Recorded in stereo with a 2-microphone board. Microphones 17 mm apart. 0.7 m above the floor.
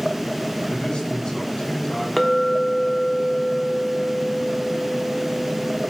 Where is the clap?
I don't hear a clap.